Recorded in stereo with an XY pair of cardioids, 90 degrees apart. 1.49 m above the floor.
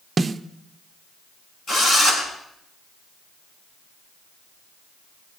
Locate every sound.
0.2 s a snare drum: 35° right, 0.7 m
1.7 s a drill: 60° left, 6.5 m